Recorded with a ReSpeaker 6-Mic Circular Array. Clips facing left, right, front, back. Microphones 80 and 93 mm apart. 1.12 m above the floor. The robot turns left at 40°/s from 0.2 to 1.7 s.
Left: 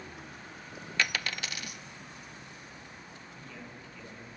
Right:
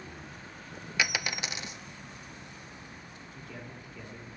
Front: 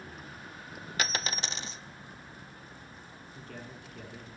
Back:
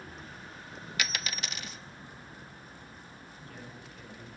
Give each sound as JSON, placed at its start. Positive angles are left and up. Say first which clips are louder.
{"t": 1.0, "sound": "a dropped coin", "louder": "right 1 dB, front 3 dB", "azimuth_deg": -15, "distance_m": 0.5}
{"t": 3.4, "sound": "a man speaking", "louder": "right 3 dB, front 3 dB", "azimuth_deg": -15, "distance_m": 10.0}